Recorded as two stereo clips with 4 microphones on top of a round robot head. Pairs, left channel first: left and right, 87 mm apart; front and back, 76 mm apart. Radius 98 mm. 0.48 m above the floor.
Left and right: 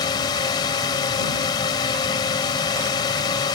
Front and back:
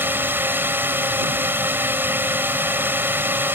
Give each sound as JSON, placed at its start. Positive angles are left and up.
{"t": 0.0, "sound": "a drone", "azimuth_deg": 120}